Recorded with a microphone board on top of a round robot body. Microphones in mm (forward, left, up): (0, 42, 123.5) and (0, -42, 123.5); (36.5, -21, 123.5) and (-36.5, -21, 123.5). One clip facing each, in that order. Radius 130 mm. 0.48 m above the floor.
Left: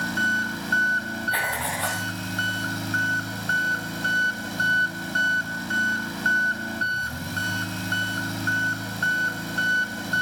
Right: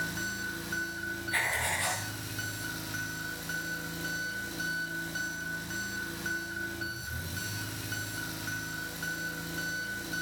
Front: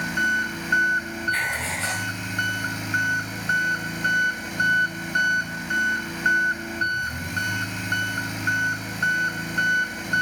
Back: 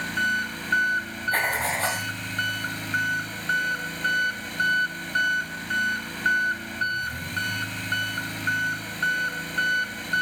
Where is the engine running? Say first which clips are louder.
Left 11 dB, front 2 dB; 80° left, 3.5 m.